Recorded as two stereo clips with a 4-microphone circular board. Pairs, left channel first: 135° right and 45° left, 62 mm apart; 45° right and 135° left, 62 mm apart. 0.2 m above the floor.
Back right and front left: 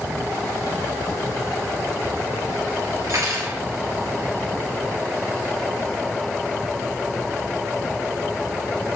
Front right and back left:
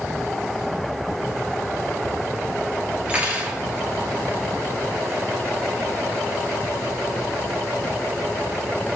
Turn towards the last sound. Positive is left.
turn(degrees=70)